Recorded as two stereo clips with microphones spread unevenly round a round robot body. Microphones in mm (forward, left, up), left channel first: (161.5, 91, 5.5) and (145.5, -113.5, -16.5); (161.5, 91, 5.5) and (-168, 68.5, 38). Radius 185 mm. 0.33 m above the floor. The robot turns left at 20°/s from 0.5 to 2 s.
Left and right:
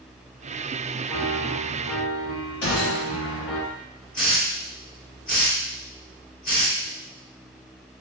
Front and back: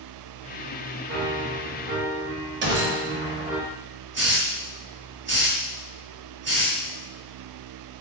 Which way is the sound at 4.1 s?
125° left.